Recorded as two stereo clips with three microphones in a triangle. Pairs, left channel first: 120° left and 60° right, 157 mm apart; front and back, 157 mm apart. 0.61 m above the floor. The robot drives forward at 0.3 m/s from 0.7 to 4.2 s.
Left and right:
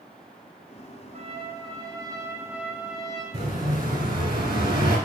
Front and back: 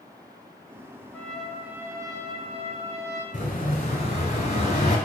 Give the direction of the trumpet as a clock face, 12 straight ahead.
3 o'clock.